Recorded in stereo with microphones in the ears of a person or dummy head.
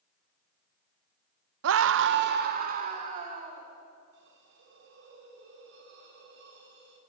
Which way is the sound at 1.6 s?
75° right (ahead or behind).